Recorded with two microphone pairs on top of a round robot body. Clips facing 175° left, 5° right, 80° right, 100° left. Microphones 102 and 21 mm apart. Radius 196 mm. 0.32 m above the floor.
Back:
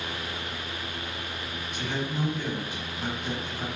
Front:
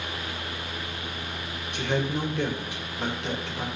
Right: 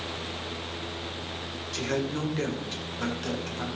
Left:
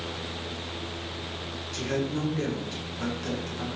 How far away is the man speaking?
About 2.5 m.